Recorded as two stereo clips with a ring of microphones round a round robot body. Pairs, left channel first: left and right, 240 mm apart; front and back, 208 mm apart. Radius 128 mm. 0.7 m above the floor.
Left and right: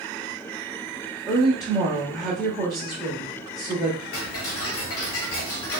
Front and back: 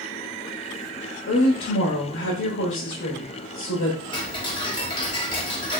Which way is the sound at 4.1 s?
65° left.